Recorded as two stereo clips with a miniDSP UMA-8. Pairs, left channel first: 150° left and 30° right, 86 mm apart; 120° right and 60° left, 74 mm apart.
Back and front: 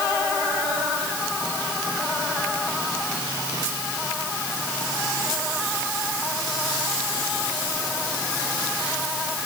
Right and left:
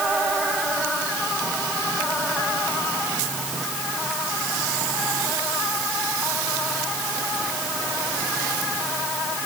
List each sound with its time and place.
Only background noise.